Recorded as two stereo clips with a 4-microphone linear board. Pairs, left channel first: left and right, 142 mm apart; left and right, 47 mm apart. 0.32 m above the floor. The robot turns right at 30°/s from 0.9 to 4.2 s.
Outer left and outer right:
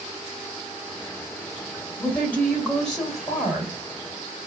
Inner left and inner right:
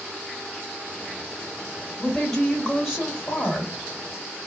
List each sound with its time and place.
2.0 s a woman speaking: 15° left (ahead or behind), 1.5 m; by 3.7 s 5° right (ahead or behind), 1.5 m